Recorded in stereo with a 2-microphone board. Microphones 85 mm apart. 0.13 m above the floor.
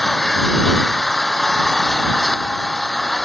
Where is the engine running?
Centre (ahead or behind).